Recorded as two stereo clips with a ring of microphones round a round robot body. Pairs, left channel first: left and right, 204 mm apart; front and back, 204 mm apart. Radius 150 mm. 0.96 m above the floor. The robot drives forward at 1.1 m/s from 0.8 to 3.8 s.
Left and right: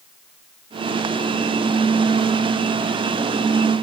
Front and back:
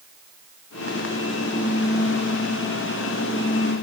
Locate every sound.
Only background noise.